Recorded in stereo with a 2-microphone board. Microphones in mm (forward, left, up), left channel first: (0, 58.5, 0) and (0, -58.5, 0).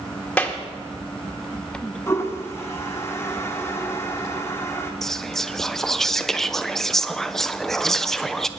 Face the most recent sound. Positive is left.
turn(degrees=5)  # may be behind; listen again after turning